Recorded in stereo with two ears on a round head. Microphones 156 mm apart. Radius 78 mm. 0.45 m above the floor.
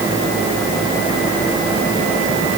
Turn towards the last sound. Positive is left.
No sound to turn to.